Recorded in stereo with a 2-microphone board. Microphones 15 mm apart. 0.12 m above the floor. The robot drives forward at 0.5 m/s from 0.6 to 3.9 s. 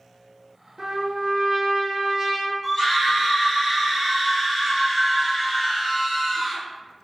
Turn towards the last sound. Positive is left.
turn(degrees=20)  # may be behind; listen again after turning